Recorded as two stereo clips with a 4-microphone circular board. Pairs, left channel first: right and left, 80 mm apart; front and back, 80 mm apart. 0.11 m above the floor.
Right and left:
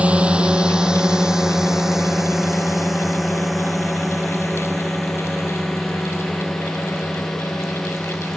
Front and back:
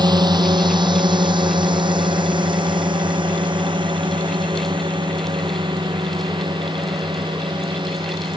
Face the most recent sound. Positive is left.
turn(degrees=-175)